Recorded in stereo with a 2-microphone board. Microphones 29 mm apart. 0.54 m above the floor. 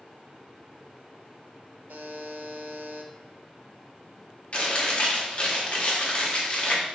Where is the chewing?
40° left (ahead or behind), 1.1 m.